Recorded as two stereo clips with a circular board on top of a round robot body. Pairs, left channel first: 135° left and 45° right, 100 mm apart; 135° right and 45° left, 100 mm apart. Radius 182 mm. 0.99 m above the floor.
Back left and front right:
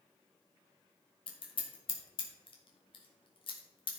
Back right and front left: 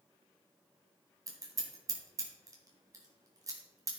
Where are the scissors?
100° left, 1.7 m.